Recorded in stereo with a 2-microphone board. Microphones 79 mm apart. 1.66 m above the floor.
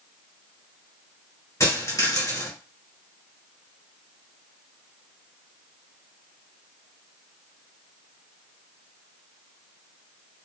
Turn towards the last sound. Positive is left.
turn(degrees=45)  # may be behind; listen again after turning